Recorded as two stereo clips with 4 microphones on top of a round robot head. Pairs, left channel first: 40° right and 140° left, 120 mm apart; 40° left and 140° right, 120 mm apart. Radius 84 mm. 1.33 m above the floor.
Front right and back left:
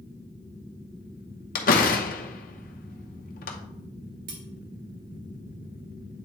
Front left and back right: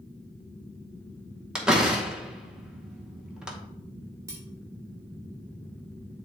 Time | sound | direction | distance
1.6 | a door slam | 55° right | 0.7 m
4.3 | cutlery clinking | 150° left | 1.4 m